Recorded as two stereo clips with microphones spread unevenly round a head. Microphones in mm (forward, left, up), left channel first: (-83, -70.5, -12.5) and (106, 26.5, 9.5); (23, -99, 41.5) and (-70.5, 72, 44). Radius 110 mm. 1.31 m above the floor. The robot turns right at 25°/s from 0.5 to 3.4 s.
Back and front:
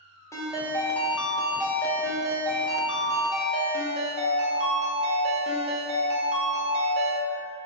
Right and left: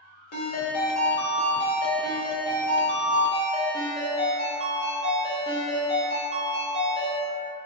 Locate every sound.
0.3 s a ringtone: 75° right, 0.5 m; by 7.2 s 5° right, 0.5 m